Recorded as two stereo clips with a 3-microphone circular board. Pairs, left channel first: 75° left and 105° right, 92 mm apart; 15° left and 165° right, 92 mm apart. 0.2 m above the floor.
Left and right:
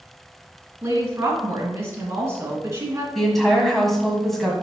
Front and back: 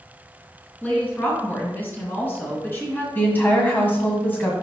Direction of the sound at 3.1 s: 10° right.